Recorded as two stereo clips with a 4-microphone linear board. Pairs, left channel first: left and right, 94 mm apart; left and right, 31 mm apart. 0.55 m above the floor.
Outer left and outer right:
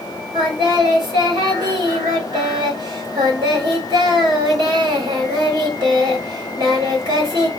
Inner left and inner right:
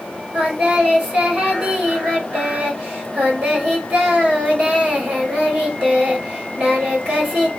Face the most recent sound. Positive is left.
turn(degrees=-50)  # may be behind; listen again after turning